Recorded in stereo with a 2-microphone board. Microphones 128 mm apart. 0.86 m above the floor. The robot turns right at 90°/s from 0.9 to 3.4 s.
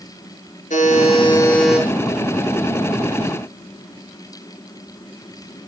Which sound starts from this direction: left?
A buzzer, at 0.7 s.